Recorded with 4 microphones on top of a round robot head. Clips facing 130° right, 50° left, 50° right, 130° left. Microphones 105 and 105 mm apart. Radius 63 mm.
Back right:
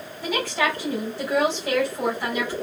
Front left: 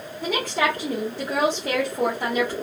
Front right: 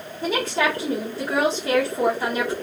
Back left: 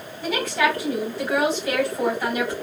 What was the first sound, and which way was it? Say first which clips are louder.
A woman speaking: front left 1 dB, even; 10° left.